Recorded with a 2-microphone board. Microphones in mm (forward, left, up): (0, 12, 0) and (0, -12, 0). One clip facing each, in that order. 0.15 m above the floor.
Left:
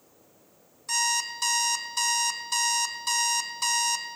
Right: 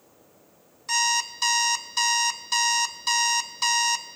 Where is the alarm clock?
20° right (ahead or behind), 0.6 m.